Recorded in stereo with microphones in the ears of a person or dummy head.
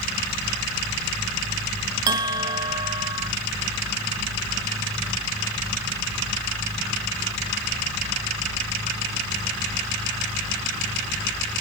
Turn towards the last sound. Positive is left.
turn(degrees=-25)  # may be behind; listen again after turning